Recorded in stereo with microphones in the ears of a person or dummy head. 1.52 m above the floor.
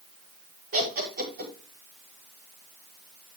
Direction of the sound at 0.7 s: 45° right (ahead or behind).